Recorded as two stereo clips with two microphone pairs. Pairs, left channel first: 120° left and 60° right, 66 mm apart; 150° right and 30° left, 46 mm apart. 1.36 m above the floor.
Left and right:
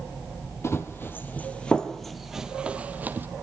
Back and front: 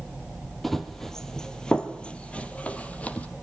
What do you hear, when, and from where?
0.6 s running footsteps: 130° left, 1.7 m; by 3.3 s 100° right, 1.8 m